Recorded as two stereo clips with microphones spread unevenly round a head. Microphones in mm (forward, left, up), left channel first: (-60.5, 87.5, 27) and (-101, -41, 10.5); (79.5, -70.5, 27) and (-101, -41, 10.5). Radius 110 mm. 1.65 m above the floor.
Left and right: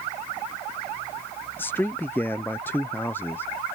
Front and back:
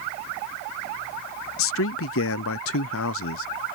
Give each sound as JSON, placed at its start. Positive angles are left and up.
{"t": 1.6, "sound": "a man speaking", "azimuth_deg": -10}